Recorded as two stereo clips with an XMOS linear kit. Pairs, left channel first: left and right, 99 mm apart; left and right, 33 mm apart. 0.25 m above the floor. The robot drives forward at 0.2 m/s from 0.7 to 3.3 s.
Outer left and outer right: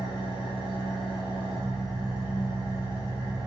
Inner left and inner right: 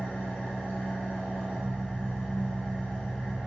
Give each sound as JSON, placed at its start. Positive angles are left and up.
{"t": 0.0, "sound": "an engine running", "side_deg": 55, "distance_m": 1.1}